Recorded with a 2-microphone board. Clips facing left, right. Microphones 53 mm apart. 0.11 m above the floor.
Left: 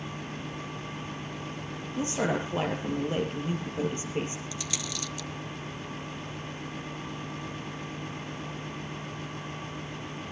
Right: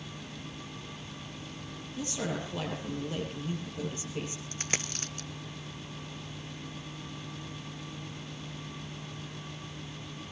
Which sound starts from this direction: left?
A woman speaking, at 2.0 s.